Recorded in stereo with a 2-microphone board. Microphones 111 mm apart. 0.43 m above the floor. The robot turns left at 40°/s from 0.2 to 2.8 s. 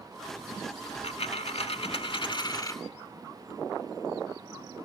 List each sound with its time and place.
0.9 s a dropped coin: 110° left, 0.7 m; by 2.8 s 30° left, 0.7 m